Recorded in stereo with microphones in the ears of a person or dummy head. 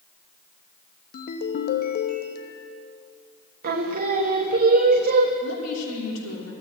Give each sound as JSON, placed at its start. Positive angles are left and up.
{"t": 1.1, "sound": "a ringtone", "side_deg": 45, "distance_m": 0.9}
{"t": 3.6, "sound": "singing", "side_deg": -55, "distance_m": 1.1}
{"t": 5.4, "sound": "a woman speaking", "side_deg": 85, "distance_m": 3.0}